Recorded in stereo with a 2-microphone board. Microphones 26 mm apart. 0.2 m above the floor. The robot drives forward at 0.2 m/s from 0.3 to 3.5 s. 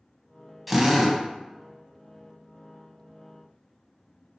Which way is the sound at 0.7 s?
Centre (ahead or behind).